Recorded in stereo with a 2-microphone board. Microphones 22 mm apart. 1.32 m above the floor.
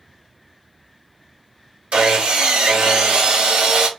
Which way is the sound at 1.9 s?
70° right (ahead or behind).